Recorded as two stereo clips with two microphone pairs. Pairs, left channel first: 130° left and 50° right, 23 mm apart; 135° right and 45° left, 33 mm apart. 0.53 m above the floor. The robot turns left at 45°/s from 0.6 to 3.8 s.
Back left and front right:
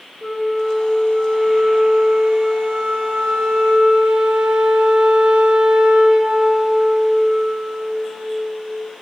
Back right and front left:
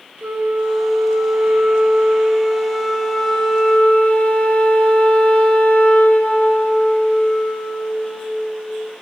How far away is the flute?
About 1.4 m.